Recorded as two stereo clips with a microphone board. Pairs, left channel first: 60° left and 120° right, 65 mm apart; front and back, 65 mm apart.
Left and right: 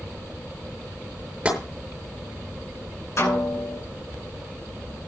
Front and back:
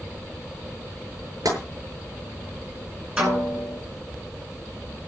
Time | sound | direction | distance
1.4 | tapping | 165° left | 8 m
3.2 | a snare drum | 105° left | 10 m